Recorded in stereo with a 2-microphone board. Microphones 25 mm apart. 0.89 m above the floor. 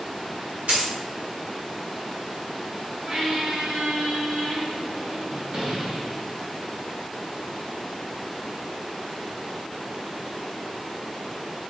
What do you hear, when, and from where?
0.7 s a dropped coin: 70° right (ahead or behind), 1.0 m
3.1 s a squeak: 45° right (ahead or behind), 1.1 m